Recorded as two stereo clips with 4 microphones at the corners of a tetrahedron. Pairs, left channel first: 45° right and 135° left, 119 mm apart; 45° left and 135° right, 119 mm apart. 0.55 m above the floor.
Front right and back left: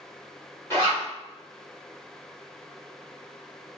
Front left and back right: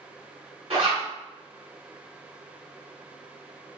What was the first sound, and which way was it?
A zipper, 110° right.